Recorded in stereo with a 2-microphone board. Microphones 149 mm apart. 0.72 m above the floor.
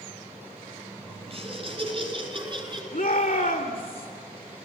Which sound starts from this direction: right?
Laughter, at 1.3 s.